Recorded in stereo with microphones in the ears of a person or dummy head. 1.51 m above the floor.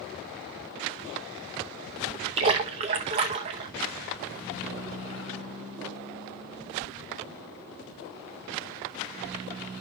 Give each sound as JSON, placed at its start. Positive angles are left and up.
{"t": 2.4, "sound": "a splash", "side_deg": -25, "distance_m": 0.8}